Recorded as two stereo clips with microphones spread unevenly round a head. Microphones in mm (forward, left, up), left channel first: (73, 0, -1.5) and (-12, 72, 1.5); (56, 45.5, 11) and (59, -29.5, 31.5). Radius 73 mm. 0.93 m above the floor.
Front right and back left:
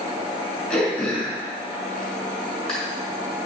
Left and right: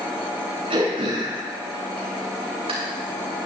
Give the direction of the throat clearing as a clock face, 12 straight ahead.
4 o'clock.